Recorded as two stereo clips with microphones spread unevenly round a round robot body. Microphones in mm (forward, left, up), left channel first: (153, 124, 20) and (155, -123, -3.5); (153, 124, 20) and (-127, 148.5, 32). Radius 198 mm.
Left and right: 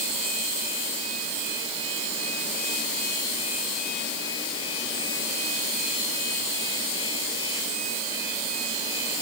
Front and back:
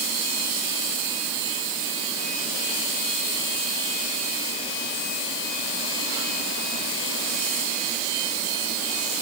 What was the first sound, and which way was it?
Only background noise.